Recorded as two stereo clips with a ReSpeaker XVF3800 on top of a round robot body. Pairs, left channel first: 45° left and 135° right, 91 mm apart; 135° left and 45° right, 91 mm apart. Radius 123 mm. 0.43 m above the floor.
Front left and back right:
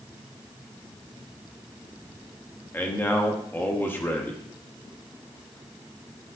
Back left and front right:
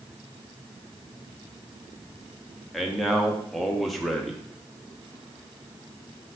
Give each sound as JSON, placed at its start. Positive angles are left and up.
{"t": 2.7, "sound": "a man speaking", "azimuth_deg": 50, "distance_m": 0.9}